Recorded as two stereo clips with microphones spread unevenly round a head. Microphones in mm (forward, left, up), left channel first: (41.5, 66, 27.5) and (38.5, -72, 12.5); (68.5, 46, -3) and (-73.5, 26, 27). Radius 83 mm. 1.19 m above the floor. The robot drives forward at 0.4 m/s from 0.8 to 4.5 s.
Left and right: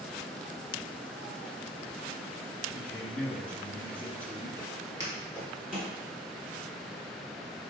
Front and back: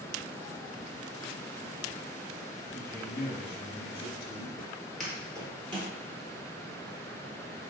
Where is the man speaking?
5° left, 1.4 m; by 4.5 s 10° left, 0.7 m.